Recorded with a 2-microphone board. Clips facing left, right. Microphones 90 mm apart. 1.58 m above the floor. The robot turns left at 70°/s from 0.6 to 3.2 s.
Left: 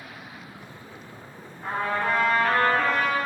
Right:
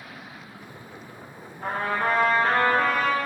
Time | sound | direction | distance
1.6 | a trumpet | 85° right | 0.5 m